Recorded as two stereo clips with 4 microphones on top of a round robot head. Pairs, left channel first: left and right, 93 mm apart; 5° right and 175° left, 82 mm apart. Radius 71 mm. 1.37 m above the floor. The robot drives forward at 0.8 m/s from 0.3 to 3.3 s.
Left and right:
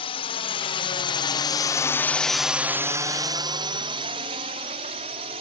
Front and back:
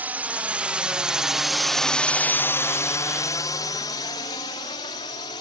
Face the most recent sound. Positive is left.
turn(degrees=-55)